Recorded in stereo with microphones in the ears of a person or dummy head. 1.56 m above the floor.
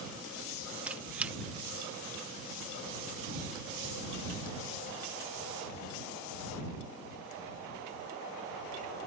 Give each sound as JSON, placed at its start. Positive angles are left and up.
{"t": 0.9, "sound": "a squeak", "side_deg": -5}